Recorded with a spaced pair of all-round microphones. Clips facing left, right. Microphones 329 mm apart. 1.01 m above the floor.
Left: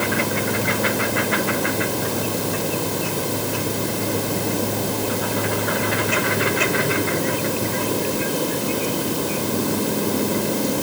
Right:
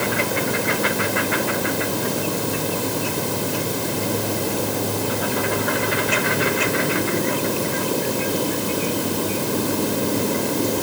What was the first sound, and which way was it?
Only background noise.